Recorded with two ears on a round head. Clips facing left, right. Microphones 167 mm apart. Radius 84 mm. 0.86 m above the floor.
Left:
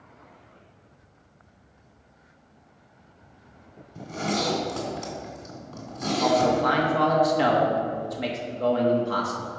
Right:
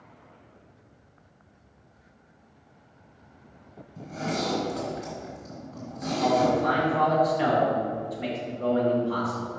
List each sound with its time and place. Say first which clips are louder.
4.0 s a zipper: left 2 dB; 75° left (ahead or behind), 2.5 m
6.2 s a man speaking: left 1 dB; 55° left (ahead or behind), 1.4 m